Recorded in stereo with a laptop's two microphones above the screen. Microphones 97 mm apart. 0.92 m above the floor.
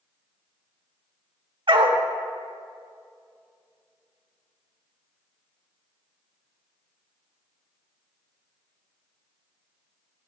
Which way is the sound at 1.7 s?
60° right (ahead or behind).